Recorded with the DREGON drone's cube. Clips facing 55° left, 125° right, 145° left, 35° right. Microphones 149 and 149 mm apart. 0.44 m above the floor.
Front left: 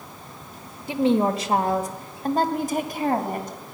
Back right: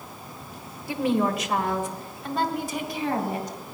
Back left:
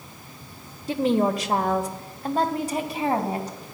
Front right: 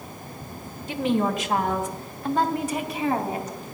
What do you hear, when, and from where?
0.9 s a woman speaking: 115° left, 1.3 m; by 3.6 s 90° left, 2.5 m